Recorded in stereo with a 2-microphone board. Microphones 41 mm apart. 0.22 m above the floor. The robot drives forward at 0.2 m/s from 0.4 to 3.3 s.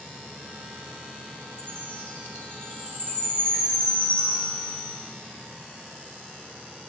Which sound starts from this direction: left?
A chime, at 1.6 s.